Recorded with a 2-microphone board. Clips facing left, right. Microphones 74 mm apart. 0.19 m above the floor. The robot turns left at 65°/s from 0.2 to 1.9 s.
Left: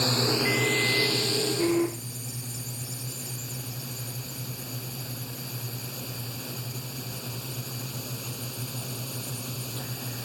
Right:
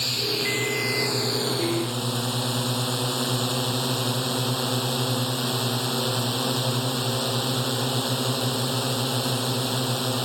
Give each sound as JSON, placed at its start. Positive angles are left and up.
{"t": 0.0, "sound": "a drone", "azimuth_deg": 30}